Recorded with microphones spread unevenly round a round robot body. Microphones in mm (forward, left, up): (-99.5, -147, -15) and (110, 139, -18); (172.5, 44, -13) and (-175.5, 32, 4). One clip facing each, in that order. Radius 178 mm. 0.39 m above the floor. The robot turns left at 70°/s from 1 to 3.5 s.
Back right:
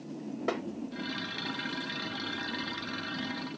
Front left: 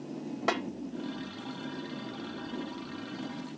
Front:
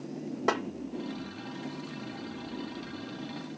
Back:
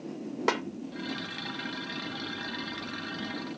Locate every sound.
0.5 s a snare drum: 115° left, 0.7 m